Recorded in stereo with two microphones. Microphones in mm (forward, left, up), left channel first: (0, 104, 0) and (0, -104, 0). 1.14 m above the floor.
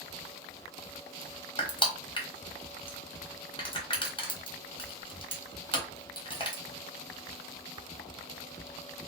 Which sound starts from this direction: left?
Crushing, at 1.6 s.